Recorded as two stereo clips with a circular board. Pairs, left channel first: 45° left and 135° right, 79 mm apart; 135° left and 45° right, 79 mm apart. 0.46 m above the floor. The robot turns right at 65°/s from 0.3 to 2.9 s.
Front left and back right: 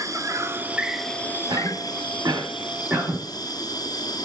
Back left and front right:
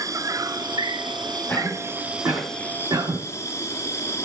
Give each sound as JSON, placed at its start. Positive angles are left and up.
{"t": 0.0, "sound": "an insect", "azimuth_deg": -90, "distance_m": 1.3}
{"t": 1.5, "sound": "a cough", "azimuth_deg": -140, "distance_m": 3.0}